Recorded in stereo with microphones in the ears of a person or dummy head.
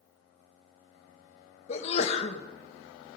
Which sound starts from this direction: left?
A sneeze, at 1.7 s.